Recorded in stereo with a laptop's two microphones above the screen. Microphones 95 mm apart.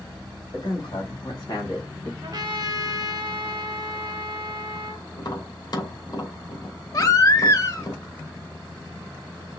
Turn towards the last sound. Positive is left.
turn(degrees=40)  # may be behind; listen again after turning